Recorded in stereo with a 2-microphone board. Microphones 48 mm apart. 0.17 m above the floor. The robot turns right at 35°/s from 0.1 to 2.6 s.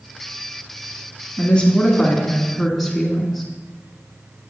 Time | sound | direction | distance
1.4 | a woman speaking | 25° left (ahead or behind) | 1.4 m